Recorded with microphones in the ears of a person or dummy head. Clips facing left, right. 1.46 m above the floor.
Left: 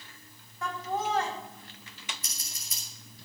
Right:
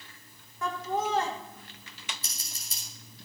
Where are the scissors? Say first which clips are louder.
Even; 30° right (ahead or behind), 3 m.